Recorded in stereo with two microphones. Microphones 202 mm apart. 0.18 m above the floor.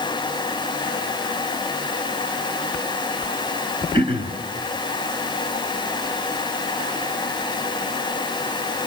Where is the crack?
No crack in this recording.